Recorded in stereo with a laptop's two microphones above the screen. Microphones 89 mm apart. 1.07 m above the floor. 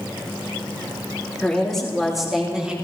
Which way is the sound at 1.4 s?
10° left (ahead or behind).